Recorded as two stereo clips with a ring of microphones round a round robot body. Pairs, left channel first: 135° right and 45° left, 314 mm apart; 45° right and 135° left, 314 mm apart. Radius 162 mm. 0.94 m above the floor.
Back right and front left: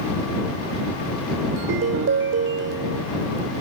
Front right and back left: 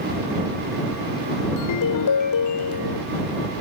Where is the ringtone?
10° right.